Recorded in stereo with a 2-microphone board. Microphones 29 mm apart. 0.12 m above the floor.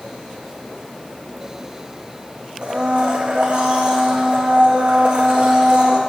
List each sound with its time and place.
2.6 s a blender: 40° right (ahead or behind), 1.7 m